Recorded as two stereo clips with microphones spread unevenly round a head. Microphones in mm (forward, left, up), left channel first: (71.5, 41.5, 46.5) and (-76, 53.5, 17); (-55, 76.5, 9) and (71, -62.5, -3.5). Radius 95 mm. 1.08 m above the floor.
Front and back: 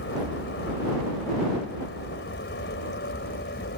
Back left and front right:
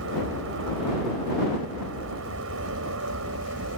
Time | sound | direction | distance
0.0 | an aircraft | 30° right | ?